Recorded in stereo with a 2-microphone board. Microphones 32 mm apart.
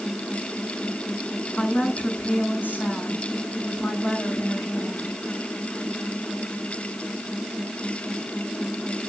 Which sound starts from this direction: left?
A woman speaking, at 1.6 s.